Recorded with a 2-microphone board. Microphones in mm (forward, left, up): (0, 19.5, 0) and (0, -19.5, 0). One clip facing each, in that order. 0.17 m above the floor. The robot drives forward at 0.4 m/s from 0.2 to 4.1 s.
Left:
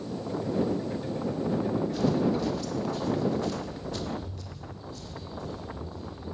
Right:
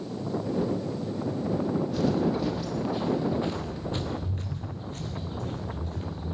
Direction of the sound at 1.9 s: 5° right (ahead or behind).